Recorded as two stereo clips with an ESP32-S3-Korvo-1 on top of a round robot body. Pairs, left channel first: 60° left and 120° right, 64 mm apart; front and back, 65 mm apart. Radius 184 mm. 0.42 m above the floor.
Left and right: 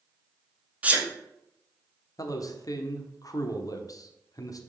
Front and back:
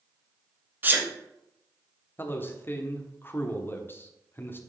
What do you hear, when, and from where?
0.8 s a sneeze: 165° right, 1.5 m
2.2 s a man speaking: 50° left, 1.2 m